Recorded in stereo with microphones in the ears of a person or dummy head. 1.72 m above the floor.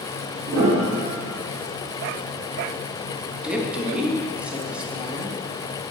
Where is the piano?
70° right (ahead or behind), 2 m.